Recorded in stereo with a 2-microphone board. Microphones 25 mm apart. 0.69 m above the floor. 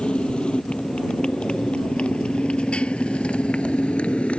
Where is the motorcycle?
40° left (ahead or behind); by 4.4 s 50° left (ahead or behind).